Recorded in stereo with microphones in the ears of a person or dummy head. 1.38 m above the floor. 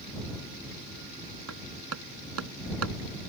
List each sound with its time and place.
1.5 s hammering: 85° right